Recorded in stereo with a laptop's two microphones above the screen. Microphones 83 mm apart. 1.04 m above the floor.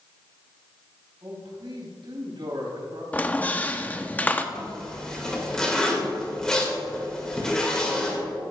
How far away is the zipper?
About 1.7 m.